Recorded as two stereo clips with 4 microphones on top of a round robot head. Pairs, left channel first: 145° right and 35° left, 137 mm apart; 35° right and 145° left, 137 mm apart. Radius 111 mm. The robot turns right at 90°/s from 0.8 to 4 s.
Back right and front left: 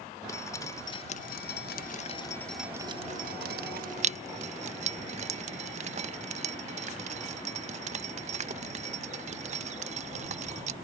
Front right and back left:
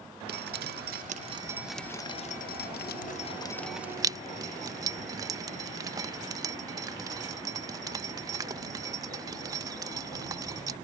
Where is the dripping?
150° left; by 10.8 s 75° left.